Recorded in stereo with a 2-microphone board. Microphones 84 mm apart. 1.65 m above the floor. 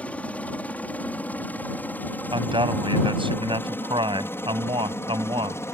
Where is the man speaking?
85° right.